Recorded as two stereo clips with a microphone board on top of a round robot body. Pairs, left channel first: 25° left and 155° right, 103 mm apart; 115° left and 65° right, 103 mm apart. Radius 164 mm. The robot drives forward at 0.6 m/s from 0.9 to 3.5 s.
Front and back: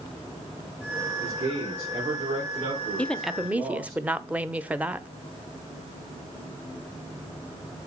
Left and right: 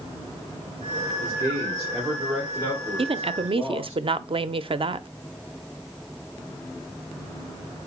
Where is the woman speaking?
55° right, 0.8 m; by 5.1 s 80° right, 0.7 m.